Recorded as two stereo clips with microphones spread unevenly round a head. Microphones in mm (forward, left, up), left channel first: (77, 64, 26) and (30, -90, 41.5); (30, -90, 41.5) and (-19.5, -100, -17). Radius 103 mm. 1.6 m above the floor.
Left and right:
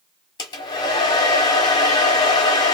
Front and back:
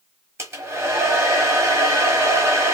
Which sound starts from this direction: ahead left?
A hair dryer, at 0.4 s.